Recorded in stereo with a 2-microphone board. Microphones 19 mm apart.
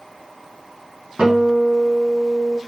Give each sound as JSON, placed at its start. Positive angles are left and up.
{"t": 1.2, "sound": "a guitar", "side_deg": -60, "distance_m": 3.5}